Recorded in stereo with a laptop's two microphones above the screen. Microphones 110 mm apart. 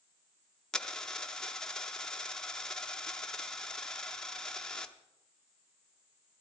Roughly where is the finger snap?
No finger snap in this recording.